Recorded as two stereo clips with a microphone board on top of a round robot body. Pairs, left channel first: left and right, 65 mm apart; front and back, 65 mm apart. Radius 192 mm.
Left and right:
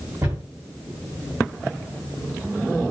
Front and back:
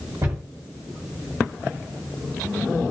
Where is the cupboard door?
135° right, 1.4 m.